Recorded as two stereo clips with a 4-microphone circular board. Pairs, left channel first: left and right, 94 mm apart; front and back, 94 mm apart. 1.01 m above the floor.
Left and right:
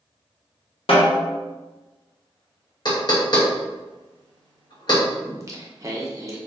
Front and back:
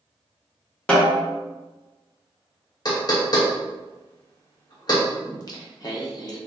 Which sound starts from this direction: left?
A snare drum, at 0.9 s.